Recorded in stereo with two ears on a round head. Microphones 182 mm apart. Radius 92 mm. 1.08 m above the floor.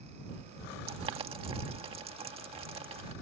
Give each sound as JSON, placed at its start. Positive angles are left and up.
{"t": 0.9, "sound": "boiling", "side_deg": -30}